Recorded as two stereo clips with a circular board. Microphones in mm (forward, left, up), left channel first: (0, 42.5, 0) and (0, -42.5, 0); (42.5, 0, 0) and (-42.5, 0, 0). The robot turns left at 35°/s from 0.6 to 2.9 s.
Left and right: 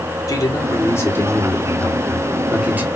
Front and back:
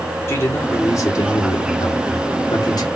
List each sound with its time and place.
0.3 s a man speaking: 55° left, 1.8 m; by 2.9 s 25° right, 1.8 m